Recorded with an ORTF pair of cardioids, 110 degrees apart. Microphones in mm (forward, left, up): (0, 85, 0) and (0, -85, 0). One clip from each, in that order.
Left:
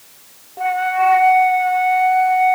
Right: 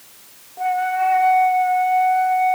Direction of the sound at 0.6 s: 35° left.